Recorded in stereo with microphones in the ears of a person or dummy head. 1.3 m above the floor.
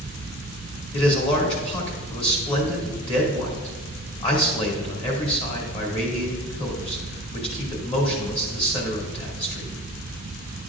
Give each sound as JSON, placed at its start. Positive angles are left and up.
{"t": 0.9, "sound": "a man speaking", "side_deg": 30, "distance_m": 2.5}